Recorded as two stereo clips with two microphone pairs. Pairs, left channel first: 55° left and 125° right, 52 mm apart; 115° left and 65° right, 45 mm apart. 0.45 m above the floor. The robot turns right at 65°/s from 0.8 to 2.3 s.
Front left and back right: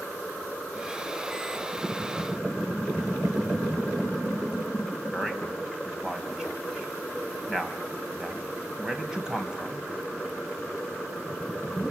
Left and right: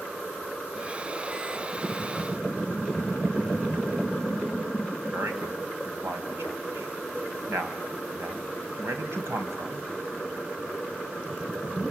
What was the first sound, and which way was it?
A man speaking, 50° right.